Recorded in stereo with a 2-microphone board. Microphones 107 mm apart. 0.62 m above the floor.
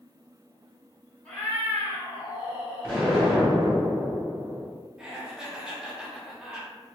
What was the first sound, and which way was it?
A cat meowing, 10° left (ahead or behind).